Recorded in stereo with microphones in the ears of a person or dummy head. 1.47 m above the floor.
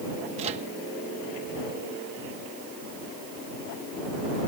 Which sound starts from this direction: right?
A microwave, at 0.4 s.